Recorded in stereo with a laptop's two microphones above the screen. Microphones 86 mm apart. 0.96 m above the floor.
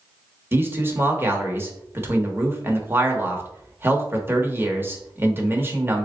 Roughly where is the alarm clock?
No alarm clock in this recording.